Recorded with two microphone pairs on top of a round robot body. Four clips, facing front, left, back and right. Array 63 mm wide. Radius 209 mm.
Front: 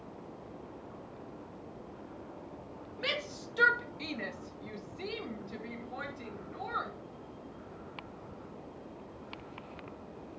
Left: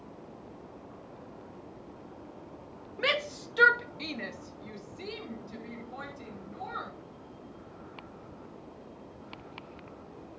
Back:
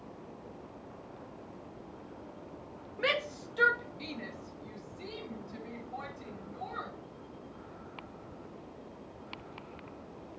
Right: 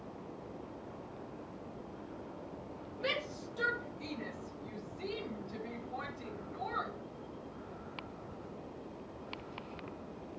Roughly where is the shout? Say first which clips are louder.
Left 7 dB, back 5 dB; behind left.